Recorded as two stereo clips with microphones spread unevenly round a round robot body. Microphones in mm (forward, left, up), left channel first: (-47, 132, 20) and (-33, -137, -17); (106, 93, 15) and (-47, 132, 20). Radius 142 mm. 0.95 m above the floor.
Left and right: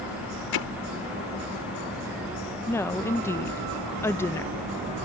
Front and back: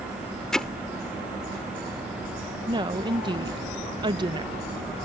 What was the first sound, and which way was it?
Hammering, 70° left.